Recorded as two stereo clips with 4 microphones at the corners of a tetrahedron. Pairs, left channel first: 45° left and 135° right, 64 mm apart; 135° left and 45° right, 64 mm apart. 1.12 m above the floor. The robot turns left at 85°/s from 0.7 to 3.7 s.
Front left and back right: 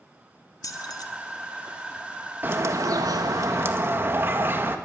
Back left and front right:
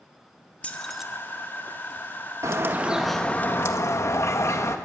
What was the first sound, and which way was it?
Keys jangling, 70° left.